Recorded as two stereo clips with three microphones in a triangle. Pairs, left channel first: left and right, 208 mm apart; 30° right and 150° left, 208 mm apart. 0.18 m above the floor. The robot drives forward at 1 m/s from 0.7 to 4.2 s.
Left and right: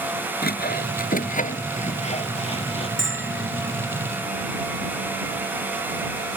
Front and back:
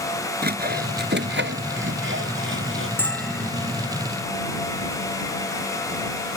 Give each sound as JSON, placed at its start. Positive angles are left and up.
{"t": 0.4, "sound": "sawing", "azimuth_deg": 120}
{"t": 3.0, "sound": "a bell", "azimuth_deg": -110}